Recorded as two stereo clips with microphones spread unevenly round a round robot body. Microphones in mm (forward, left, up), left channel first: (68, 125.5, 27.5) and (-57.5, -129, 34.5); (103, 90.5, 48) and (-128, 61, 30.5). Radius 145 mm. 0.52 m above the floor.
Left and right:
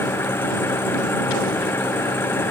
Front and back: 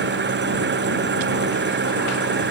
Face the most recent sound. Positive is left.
turn(degrees=145)